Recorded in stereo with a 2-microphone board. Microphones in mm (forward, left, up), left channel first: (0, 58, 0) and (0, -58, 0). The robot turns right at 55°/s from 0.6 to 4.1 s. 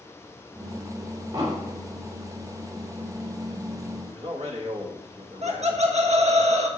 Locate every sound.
1.3 s an explosion: 40° right (ahead or behind), 4 m; by 1.7 s 60° right (ahead or behind), 4 m
4.1 s a man speaking: 65° right (ahead or behind), 1.8 m; by 6.4 s 70° right (ahead or behind), 1.8 m
5.4 s laughter: 70° right (ahead or behind), 1.3 m